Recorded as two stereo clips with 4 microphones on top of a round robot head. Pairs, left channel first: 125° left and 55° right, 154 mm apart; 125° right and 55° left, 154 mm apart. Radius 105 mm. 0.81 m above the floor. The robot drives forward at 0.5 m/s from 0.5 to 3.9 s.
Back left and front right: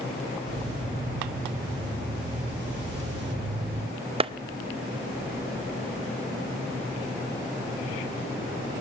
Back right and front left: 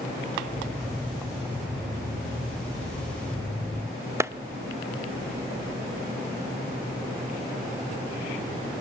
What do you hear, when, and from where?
4.2 s a clap: 10° right, 0.8 m